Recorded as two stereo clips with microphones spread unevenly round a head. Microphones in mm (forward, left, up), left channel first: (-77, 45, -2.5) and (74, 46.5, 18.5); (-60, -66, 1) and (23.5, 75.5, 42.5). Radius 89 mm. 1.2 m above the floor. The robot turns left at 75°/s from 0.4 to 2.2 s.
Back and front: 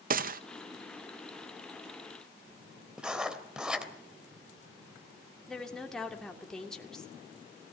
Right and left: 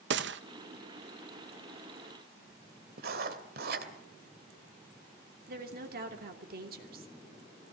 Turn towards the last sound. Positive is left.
turn(degrees=95)